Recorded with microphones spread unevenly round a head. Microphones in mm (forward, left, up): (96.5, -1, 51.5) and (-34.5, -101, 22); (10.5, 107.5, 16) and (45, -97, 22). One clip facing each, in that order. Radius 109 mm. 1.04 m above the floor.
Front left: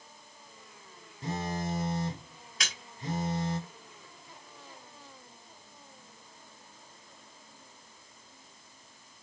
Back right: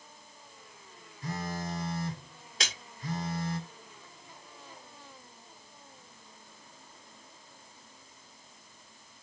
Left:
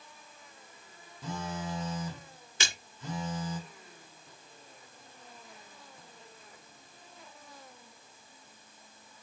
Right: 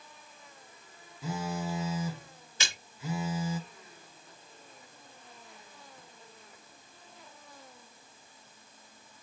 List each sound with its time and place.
1.2 s a phone buzzing: 5° right, 0.7 m
2.6 s a splash: 145° left, 1.3 m